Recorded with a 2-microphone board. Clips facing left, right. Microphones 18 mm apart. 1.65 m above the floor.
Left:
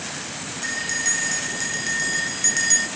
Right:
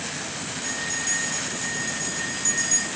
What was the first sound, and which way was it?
A bell, 65° left (ahead or behind).